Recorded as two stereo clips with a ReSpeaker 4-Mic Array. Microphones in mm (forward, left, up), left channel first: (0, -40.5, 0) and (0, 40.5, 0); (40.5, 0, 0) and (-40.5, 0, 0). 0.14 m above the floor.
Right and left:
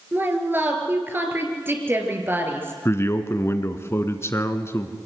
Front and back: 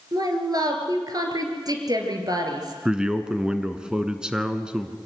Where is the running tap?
No running tap in this recording.